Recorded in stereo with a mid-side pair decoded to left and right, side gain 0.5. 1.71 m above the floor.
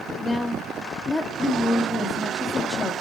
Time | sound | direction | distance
0.1 | a woman speaking | 35° left | 2.5 m